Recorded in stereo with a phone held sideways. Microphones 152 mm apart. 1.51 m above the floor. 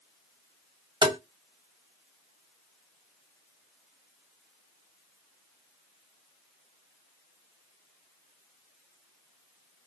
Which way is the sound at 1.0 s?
30° right (ahead or behind).